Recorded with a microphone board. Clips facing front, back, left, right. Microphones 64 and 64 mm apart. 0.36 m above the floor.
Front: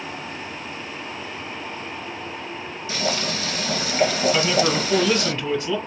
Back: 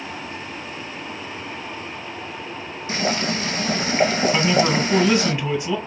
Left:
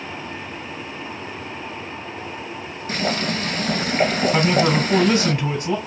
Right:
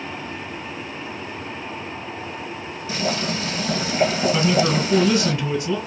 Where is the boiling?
120° left, 1.3 m.